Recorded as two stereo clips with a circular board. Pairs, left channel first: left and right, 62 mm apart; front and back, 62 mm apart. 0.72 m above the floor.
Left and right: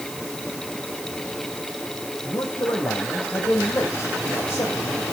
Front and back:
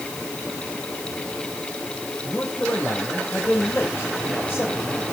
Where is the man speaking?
65° left, 3.5 m.